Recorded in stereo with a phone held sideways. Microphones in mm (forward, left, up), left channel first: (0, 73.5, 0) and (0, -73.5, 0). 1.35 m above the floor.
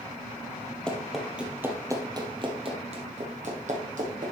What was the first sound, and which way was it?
Running footsteps, 5° left (ahead or behind).